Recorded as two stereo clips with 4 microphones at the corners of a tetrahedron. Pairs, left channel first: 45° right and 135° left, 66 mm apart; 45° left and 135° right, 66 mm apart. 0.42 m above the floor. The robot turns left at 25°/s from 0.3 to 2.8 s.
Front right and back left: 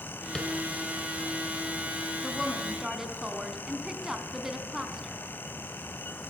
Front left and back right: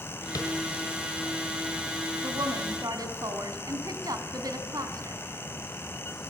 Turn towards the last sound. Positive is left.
turn(degrees=-145)